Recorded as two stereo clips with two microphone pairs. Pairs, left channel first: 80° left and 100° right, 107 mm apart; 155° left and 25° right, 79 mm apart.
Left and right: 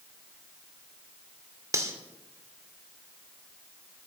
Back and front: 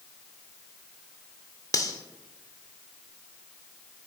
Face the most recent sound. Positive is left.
turn(degrees=-160)